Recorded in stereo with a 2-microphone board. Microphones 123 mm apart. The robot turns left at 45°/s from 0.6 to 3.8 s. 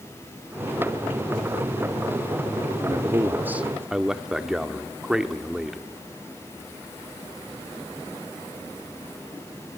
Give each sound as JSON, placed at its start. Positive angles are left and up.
{"t": 2.9, "sound": "a man speaking", "azimuth_deg": -130, "distance_m": 1.1}